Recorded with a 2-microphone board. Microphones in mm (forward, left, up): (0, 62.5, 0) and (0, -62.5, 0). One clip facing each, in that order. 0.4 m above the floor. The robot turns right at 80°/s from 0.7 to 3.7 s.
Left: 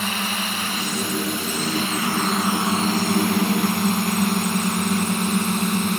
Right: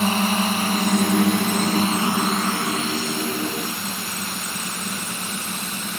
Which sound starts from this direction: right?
A drone, at 0.0 s.